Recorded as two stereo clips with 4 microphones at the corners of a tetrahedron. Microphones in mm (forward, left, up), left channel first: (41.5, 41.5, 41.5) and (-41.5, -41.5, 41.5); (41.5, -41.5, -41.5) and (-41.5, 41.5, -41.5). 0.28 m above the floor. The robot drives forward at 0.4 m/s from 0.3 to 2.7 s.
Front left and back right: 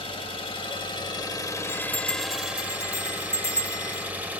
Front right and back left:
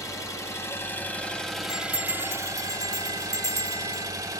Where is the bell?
155° left, 3 m; by 4.1 s 160° left, 3 m.